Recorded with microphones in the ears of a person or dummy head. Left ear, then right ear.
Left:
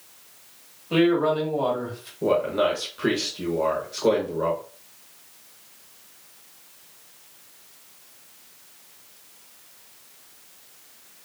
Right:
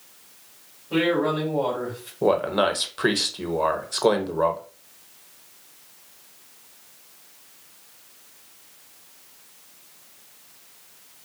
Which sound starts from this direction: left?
A man speaking, at 0.9 s.